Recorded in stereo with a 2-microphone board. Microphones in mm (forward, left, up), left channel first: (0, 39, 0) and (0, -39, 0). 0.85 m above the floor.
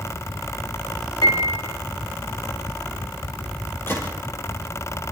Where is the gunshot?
30° left (ahead or behind), 6.5 m.